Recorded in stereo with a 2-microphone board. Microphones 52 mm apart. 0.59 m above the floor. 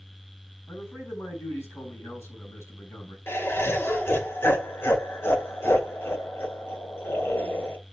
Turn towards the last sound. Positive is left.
turn(degrees=50)  # may be behind; listen again after turning